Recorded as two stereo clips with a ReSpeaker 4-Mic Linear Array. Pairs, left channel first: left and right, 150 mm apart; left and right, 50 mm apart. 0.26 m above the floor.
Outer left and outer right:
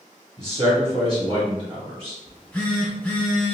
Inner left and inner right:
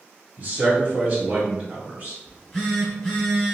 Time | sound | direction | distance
0.4 | a man speaking | 40° right (ahead or behind) | 1.8 m
2.3 | a phone buzzing | 10° left (ahead or behind) | 1.0 m